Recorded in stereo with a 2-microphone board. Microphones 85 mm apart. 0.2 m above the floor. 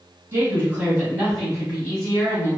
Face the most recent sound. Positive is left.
turn(degrees=20)  # may be behind; listen again after turning